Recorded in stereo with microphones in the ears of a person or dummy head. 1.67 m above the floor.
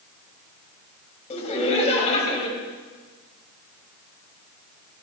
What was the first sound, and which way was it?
Laughter, 30° left (ahead or behind).